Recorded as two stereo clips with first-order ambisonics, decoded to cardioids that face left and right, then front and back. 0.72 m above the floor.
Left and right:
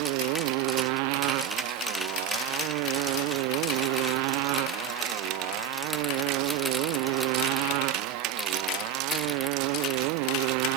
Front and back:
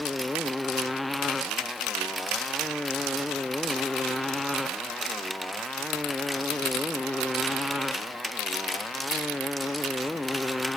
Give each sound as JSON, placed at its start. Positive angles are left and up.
{"t": 0.0, "sound": "a motorcycle", "azimuth_deg": -85}